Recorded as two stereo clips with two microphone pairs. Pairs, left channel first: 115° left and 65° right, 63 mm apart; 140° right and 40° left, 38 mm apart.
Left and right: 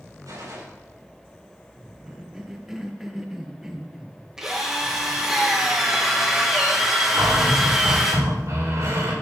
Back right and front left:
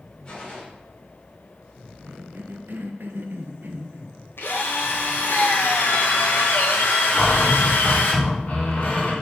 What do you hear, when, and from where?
0.2 s a gunshot: 75° right, 5 m
2.1 s a cough: 15° left, 1.6 m
4.4 s a drill: 150° right, 2 m
7.1 s a cupboard door: 90° right, 4 m